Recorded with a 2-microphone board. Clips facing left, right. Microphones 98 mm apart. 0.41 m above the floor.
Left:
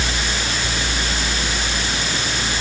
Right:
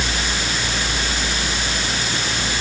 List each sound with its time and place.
Only background noise.